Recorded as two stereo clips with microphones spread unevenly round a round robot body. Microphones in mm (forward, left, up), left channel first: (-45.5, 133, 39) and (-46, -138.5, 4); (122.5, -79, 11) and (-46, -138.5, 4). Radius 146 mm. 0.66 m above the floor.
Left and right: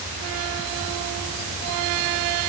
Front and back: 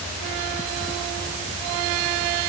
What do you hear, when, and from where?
Only background noise.